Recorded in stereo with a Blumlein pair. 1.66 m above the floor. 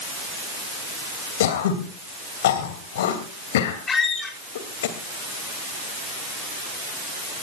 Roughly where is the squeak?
Ahead.